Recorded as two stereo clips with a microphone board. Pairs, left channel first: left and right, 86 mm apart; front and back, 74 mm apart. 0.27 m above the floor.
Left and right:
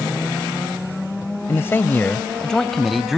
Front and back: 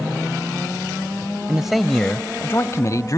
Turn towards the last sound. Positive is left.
turn(degrees=-5)